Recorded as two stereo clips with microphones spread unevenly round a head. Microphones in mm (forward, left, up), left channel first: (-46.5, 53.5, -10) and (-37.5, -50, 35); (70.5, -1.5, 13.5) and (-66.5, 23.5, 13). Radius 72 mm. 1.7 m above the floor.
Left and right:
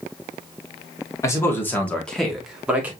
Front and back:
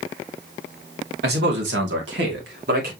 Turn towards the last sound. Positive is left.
turn(degrees=-155)